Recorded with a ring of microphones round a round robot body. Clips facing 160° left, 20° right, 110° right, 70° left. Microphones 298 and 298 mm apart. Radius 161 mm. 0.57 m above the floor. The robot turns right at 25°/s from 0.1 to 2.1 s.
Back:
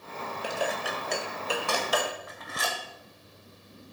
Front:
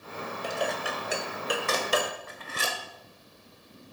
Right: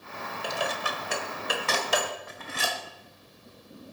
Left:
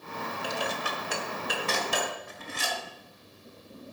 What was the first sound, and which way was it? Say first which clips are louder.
Dishes clattering: even, right 2 dB; 125° right.